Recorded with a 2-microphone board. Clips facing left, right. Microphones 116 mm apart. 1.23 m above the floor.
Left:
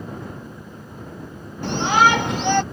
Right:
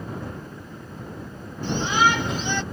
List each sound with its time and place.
1.6 s a shout: 80° left; by 2.6 s 65° left (ahead or behind)